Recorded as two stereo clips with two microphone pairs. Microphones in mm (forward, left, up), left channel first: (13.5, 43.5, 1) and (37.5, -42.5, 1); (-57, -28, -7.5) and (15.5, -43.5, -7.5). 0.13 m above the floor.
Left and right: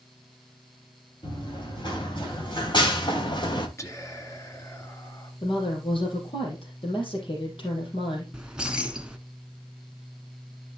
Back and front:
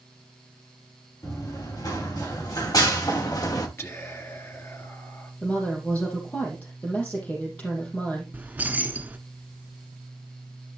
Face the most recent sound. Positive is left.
turn(degrees=-10)